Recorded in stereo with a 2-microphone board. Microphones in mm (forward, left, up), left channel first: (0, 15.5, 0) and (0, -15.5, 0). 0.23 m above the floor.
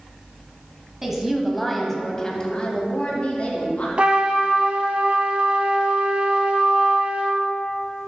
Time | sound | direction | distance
1.0 | a woman speaking | 10° right (ahead or behind) | 1.2 m
4.0 | a trumpet | 40° right (ahead or behind) | 1.0 m